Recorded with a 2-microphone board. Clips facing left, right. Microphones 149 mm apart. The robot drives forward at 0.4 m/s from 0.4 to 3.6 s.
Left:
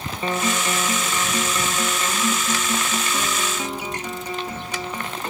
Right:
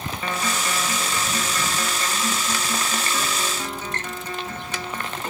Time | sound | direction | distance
0.2 | a guitar | 25° left (ahead or behind) | ?